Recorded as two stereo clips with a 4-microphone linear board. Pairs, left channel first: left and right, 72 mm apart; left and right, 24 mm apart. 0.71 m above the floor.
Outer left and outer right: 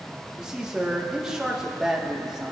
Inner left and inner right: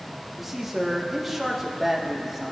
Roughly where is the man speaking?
Centre.